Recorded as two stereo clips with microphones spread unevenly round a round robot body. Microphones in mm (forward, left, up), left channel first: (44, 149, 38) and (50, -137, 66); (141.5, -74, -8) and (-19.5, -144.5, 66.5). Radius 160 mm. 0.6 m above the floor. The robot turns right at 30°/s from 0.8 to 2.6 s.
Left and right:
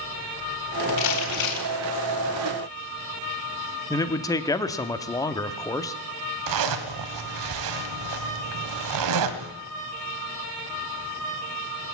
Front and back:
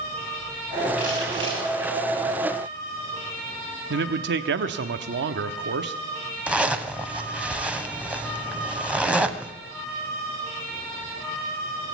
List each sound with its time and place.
1.0 s crumpling: 115° left, 4 m; by 1.7 s 135° left, 4 m
3.9 s a man speaking: 160° left, 0.9 m
6.5 s a zipper: 75° right, 1.6 m